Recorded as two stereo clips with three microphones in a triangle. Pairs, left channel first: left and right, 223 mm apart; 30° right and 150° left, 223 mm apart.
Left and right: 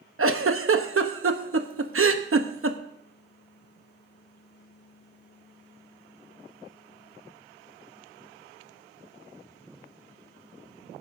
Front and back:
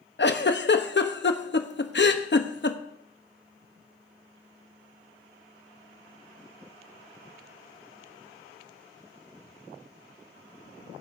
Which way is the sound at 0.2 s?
70° right.